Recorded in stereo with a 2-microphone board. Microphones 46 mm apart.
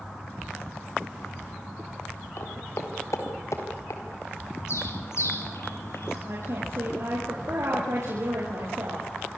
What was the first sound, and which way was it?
Footsteps, 70° left (ahead or behind).